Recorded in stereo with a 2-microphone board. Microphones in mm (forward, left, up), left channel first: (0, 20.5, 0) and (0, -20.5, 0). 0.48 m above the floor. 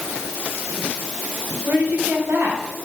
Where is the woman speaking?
70° right (ahead or behind), 3.5 m.